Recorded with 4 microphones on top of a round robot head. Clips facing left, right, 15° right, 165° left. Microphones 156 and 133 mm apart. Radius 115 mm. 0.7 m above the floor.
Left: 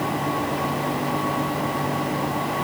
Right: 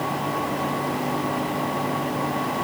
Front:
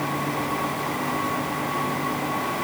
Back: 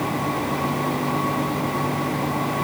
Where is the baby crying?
I don't hear a baby crying.